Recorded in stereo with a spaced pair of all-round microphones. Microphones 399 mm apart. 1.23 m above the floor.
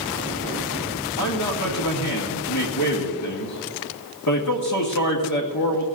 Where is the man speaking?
45° left (ahead or behind), 1.8 m.